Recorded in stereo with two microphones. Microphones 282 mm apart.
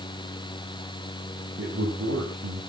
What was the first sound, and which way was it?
A man speaking, 50° right (ahead or behind).